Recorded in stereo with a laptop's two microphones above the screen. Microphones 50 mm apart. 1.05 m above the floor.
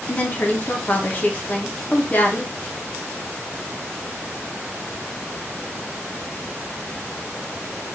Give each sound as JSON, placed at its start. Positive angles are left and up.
{"t": 0.1, "sound": "a woman speaking", "side_deg": 35, "distance_m": 0.6}